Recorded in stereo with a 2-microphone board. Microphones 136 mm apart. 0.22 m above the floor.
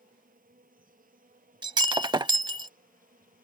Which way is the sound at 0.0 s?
80° right.